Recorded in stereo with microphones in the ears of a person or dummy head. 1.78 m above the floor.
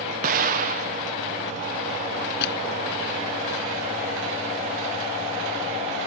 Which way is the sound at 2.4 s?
60° left (ahead or behind).